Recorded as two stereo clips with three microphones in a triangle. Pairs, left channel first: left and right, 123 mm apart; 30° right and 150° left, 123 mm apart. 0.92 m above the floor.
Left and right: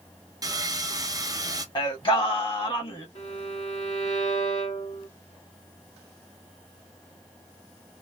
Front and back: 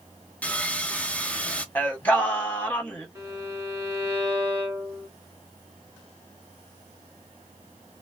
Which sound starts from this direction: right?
Sawing, at 0.4 s.